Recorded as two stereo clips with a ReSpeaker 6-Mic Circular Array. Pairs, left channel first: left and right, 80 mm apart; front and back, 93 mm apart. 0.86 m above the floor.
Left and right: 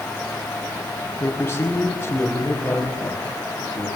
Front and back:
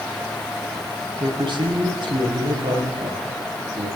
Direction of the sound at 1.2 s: 150° left.